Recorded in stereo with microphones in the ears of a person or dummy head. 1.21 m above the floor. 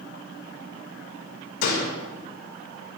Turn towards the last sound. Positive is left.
turn(degrees=65)  # may be behind; listen again after turning